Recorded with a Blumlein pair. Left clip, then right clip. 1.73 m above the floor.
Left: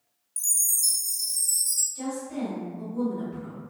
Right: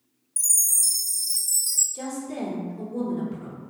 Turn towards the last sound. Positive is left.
turn(degrees=-45)